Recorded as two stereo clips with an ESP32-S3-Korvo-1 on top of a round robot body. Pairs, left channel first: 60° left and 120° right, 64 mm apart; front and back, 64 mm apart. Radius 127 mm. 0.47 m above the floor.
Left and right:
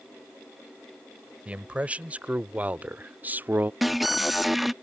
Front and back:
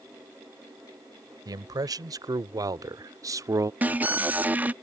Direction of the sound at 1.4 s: 170° left.